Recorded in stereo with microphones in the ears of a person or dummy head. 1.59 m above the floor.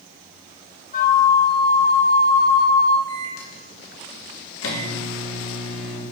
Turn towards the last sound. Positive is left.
turn(degrees=85)